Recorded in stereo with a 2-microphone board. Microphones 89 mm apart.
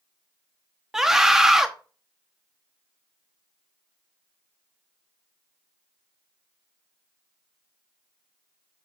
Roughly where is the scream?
Centre.